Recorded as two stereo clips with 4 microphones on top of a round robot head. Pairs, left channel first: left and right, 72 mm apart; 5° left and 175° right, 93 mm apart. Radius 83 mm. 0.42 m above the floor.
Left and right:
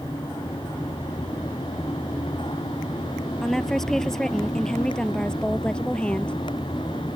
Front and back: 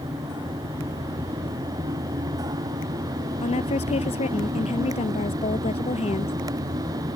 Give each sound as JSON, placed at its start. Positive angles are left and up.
{"t": 3.4, "sound": "a woman speaking", "azimuth_deg": 5}